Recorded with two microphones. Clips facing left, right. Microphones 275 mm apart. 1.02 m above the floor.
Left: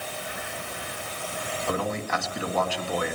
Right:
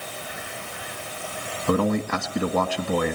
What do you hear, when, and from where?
1.7 s a man speaking: 55° right (ahead or behind), 1.9 m